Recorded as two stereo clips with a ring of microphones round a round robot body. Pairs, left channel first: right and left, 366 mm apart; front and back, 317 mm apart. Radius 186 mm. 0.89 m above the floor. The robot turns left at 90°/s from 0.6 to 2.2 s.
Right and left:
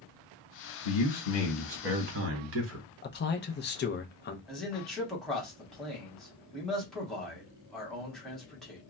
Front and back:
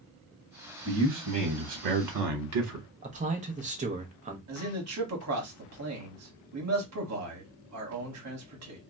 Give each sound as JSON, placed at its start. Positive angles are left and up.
{"t": 0.8, "sound": "a man speaking", "azimuth_deg": -95, "distance_m": 1.0}
{"t": 3.0, "sound": "a man speaking", "azimuth_deg": -130, "distance_m": 0.5}
{"t": 4.5, "sound": "a man speaking", "azimuth_deg": 180, "distance_m": 1.2}